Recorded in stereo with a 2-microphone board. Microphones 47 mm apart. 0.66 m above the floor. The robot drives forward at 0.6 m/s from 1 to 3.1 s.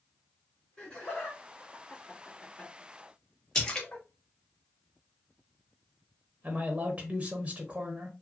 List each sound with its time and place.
0.8 s laughter: 20° left (ahead or behind), 1.5 m; by 4.0 s 35° left (ahead or behind), 1.0 m
3.5 s a splash: 20° left (ahead or behind), 0.9 m
6.4 s a man speaking: 30° right (ahead or behind), 0.6 m